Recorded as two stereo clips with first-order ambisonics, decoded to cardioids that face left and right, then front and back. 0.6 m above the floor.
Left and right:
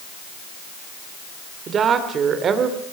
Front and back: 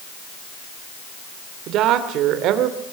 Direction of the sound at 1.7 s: 150° right.